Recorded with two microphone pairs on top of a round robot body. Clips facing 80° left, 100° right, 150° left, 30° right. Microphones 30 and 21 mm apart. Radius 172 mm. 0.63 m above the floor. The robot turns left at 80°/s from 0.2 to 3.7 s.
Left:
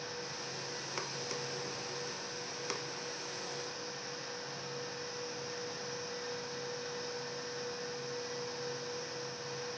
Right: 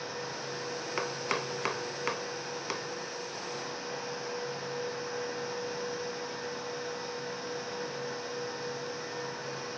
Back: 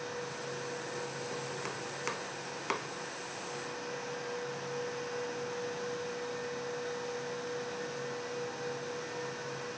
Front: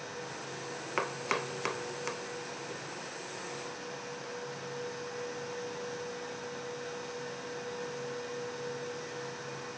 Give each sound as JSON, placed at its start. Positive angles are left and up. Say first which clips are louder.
{"t": 1.0, "sound": "chopping", "louder": "right 9 dB, front 6 dB", "azimuth_deg": -35}